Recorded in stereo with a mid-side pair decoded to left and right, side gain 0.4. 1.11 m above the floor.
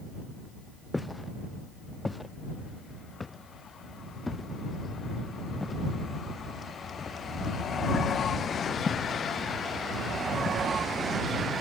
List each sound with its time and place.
0.9 s footsteps: 10° left; by 10.6 s 50° left